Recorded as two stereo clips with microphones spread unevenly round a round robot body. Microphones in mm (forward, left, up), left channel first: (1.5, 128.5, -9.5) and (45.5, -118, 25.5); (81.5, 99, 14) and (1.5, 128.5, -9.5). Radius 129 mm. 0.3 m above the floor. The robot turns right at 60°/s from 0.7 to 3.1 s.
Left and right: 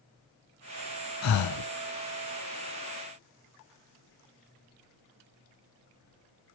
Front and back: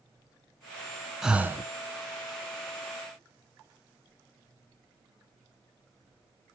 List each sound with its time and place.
1.2 s breathing: 70° left, 0.7 m; by 1.7 s 100° left, 0.7 m